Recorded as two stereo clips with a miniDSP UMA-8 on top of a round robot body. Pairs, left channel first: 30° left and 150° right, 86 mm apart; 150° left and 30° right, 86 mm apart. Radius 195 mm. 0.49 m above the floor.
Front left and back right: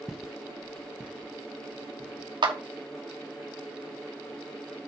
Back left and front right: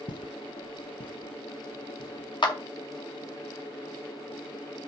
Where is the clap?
175° right, 2.5 m.